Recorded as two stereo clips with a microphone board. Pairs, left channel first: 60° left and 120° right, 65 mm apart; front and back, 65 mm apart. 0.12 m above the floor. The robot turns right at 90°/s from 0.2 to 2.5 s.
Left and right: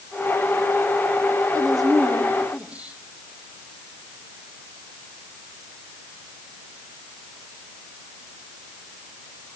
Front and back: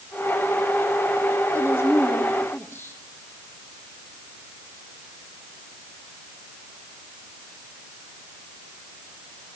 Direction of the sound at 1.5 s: 140° right.